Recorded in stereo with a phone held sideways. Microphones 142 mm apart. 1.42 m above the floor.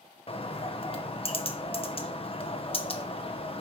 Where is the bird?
40° left (ahead or behind), 0.9 m.